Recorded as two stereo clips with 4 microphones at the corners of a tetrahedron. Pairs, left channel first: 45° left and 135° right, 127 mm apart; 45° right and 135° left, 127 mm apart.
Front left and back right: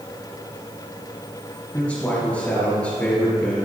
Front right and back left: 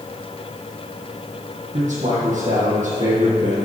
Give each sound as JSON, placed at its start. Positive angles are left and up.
{"t": 1.7, "sound": "a man speaking", "azimuth_deg": 125, "distance_m": 3.0}